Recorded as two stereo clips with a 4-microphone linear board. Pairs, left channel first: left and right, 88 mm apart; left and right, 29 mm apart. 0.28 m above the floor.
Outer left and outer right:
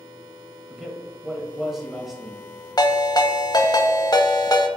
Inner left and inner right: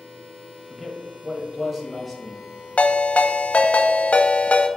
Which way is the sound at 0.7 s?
5° right (ahead or behind).